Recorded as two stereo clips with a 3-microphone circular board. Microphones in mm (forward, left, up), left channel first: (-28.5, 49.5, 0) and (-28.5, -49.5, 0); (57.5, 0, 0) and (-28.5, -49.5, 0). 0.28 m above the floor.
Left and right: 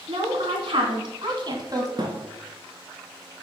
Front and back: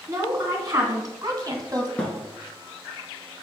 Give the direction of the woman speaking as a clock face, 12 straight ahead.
3 o'clock.